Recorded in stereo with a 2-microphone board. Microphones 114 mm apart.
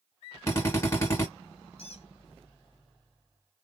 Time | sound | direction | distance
0.5 | a drill | 25° left (ahead or behind) | 1.8 m
1.8 | a squeak | 60° left (ahead or behind) | 1.2 m